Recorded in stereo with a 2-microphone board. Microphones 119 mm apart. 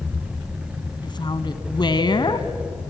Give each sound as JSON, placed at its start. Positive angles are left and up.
{"t": 1.0, "sound": "a woman speaking", "side_deg": 40, "distance_m": 1.3}